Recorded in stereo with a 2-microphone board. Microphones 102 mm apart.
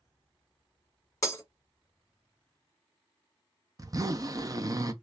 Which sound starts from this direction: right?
A zipper, at 3.8 s.